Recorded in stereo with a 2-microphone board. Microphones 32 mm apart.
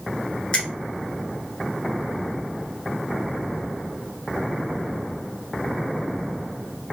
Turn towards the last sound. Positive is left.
turn(degrees=35)  # may be behind; listen again after turning